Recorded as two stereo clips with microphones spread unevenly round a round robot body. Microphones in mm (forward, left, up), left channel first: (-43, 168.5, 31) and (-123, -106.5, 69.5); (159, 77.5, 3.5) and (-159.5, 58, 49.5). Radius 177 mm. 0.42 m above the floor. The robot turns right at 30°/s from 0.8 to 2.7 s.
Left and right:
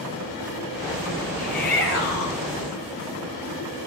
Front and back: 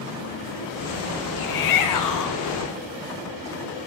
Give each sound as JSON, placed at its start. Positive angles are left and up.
{"t": 1.4, "sound": "a shout", "azimuth_deg": 5, "distance_m": 4.5}